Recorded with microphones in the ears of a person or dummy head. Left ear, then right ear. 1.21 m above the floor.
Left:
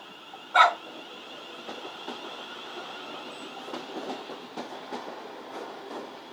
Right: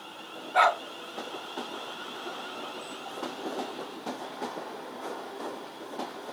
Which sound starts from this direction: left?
A dog barking, at 0.5 s.